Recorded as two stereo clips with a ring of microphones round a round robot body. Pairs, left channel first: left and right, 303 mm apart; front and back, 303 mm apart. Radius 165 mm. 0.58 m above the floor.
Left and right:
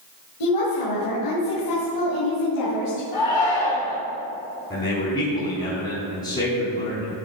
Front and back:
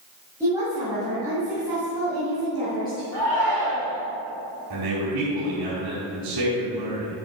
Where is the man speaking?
150° left, 4.5 m.